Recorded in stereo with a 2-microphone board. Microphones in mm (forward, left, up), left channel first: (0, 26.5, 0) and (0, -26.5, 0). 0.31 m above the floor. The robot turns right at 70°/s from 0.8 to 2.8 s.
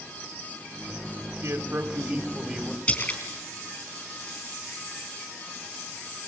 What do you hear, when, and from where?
1.4 s a man speaking: 85° right, 1.9 m; by 2.8 s 10° left, 1.9 m
2.9 s a splash: 30° left (ahead or behind), 3.5 m